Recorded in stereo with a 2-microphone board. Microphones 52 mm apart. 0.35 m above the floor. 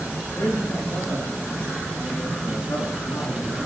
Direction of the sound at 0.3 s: 75° left (ahead or behind).